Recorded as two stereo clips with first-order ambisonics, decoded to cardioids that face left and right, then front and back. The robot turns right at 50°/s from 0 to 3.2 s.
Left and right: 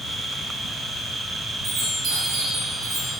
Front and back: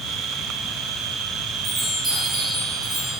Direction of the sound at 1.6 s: 120° right.